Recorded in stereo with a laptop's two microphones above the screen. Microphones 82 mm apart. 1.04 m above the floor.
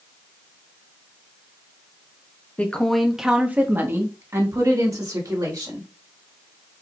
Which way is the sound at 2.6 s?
20° left (ahead or behind).